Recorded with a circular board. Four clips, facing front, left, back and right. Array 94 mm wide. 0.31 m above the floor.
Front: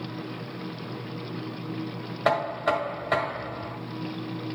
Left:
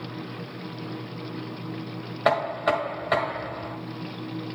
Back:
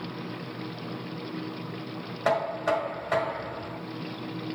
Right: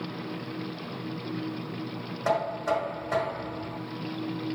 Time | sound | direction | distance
2.2 | knocking | 70° left | 1.4 m